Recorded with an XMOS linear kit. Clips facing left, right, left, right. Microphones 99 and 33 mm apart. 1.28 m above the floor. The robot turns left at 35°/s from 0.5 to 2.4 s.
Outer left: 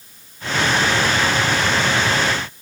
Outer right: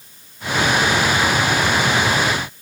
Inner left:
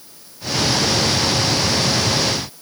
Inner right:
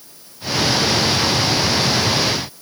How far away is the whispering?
I don't hear whispering.